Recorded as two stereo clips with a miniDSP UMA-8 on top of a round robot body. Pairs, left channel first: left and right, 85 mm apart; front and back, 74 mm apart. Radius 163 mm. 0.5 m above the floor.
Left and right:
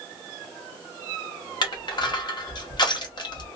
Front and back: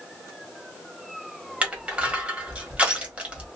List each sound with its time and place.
1.6 s crushing: 110° left, 1.7 m